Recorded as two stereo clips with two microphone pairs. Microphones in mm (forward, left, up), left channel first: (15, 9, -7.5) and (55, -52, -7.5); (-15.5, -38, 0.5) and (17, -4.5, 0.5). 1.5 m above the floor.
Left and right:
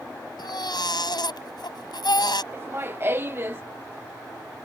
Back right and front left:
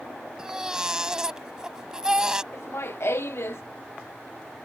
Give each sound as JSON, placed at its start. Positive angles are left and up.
{"t": 0.4, "sound": "a baby crying", "azimuth_deg": 120}
{"t": 2.5, "sound": "laughter", "azimuth_deg": -110}